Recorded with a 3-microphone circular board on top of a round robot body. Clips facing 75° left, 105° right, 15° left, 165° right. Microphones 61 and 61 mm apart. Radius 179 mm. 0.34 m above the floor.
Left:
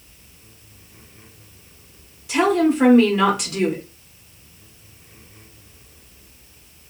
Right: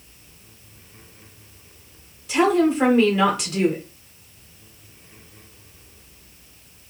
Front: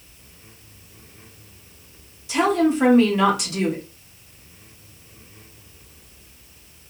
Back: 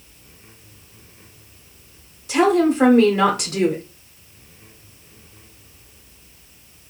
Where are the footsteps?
I don't hear footsteps.